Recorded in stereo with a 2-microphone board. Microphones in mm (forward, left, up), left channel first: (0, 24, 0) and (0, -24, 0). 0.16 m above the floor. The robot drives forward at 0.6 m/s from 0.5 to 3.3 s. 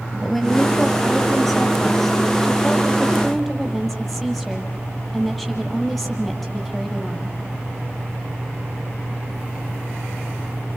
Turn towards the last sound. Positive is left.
turn(degrees=5)  # may be behind; listen again after turning